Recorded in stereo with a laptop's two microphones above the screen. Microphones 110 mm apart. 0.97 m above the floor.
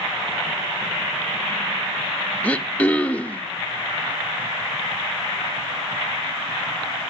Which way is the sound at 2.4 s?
15° left (ahead or behind).